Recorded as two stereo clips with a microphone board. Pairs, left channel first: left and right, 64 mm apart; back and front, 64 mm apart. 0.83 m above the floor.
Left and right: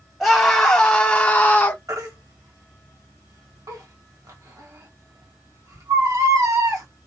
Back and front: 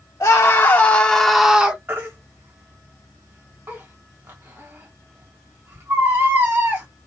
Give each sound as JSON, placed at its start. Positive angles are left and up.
{"t": 0.2, "sound": "a scream", "azimuth_deg": 170, "distance_m": 1.0}
{"t": 1.9, "sound": "a baby crying", "azimuth_deg": -60, "distance_m": 1.5}